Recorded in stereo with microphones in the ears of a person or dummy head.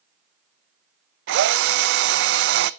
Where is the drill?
55° right (ahead or behind), 0.5 m.